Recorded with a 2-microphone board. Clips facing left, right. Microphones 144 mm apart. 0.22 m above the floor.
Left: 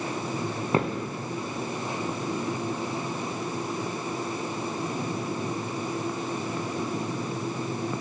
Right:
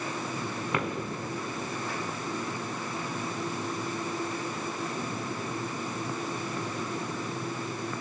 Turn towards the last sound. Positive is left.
turn(degrees=35)  # may be behind; listen again after turning